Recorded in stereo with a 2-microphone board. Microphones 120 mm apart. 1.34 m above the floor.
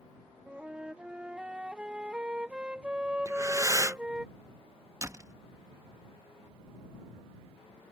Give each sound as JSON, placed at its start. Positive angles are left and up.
{"t": 0.5, "sound": "a flute", "side_deg": -10}
{"t": 3.2, "sound": "breathing", "side_deg": -25}
{"t": 5.0, "sound": "a door slam", "side_deg": -25}